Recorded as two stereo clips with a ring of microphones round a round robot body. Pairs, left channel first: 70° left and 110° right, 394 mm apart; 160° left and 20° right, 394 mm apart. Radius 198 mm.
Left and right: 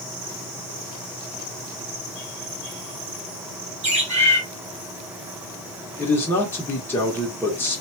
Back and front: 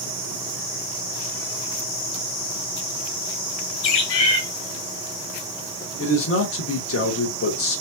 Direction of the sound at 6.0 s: 145° left.